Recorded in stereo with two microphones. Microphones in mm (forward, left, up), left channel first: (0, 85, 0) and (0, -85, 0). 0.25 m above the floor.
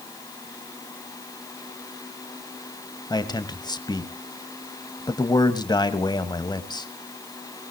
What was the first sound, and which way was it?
A man speaking, 25° left (ahead or behind).